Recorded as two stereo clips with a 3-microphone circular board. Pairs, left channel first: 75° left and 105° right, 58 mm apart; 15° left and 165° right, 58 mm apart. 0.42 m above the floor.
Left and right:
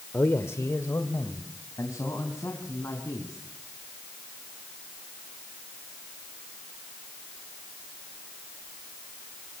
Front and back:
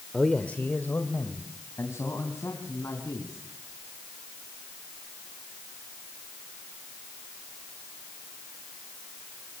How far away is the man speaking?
About 1.1 m.